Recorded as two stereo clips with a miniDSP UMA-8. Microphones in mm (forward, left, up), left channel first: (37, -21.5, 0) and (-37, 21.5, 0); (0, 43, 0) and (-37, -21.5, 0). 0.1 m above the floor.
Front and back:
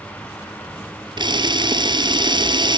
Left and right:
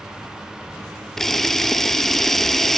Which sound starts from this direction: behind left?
A camera shutter, at 1.2 s.